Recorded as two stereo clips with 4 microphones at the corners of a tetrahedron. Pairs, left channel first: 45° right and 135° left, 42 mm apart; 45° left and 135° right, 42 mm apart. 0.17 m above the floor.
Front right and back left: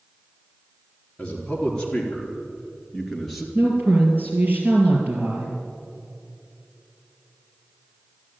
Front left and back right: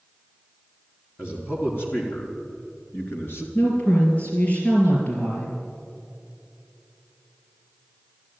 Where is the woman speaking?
95° left, 3.5 m.